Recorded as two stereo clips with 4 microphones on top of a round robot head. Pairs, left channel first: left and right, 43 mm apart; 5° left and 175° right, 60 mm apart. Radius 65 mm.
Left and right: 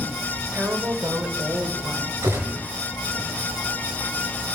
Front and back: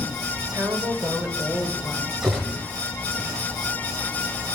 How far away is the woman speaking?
About 2.5 m.